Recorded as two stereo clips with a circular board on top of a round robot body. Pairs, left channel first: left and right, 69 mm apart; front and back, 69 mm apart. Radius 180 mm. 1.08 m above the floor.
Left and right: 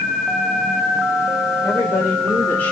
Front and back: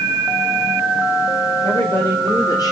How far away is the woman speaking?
About 5 m.